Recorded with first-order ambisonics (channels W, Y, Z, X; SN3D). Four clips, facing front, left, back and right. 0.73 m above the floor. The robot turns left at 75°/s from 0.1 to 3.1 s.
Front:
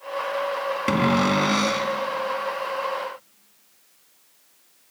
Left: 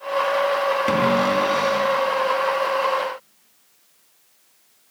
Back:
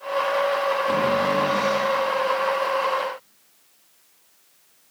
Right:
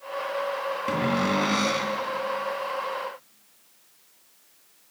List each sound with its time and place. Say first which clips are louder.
0.9 s a cupboard door: left 3 dB, front 5 dB; 30° left, 2 m; by 1.9 s 50° right, 2 m